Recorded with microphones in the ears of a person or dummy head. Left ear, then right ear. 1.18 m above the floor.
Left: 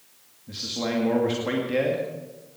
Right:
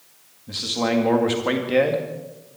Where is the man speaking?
25° right (ahead or behind), 2 m.